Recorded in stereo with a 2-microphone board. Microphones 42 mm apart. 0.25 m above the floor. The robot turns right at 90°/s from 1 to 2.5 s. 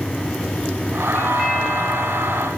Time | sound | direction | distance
1.1 | a doorbell | 150° left | 6 m